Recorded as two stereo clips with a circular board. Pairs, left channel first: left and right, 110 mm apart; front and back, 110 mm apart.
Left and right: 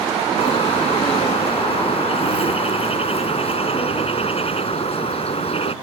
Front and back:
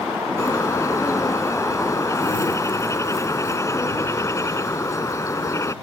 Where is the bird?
65° left.